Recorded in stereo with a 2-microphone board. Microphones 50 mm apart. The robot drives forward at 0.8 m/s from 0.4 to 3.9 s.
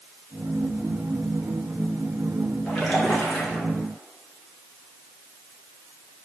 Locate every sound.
2.7 s a splash: 15° left (ahead or behind), 4 m; by 3.7 s 10° left (ahead or behind), 4.5 m